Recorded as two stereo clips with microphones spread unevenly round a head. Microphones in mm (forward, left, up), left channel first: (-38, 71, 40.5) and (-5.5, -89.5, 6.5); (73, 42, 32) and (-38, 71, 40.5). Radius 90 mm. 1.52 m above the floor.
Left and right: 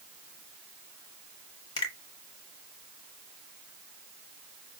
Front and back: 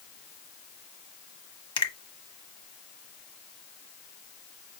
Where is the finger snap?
35° left, 1.3 m.